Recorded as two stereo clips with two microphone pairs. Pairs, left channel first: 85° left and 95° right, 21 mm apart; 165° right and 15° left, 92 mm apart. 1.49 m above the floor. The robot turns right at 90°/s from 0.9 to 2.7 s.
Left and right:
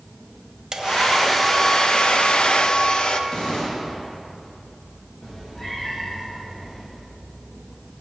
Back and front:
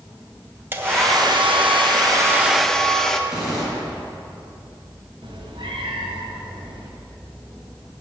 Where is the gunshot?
100° left, 7 m.